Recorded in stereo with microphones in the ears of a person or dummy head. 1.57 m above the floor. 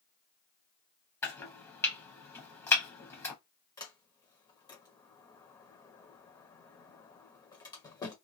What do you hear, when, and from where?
1.2 s chopping: 20° left (ahead or behind), 0.9 m
3.8 s a sliding door: 25° left (ahead or behind), 0.9 m